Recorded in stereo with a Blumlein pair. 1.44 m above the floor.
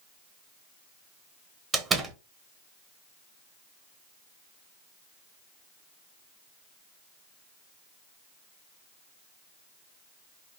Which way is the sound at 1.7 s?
20° right.